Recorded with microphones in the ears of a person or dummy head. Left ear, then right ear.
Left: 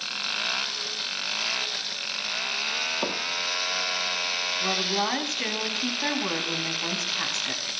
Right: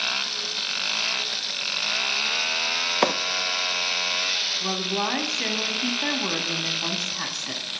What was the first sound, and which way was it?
A microwave, 70° right (ahead or behind).